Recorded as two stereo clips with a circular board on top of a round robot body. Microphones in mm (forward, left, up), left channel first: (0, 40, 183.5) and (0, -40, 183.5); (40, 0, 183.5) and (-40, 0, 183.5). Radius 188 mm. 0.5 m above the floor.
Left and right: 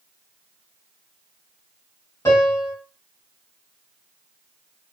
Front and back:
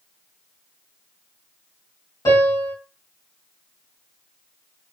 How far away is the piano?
About 2 m.